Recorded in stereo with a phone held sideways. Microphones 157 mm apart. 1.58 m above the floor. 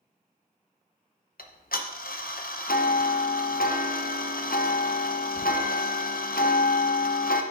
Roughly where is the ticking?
Left.